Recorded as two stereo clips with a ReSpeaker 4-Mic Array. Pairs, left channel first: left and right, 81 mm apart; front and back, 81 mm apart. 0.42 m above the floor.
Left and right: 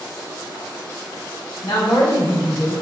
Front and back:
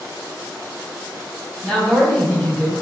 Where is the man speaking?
80° left, 3 m.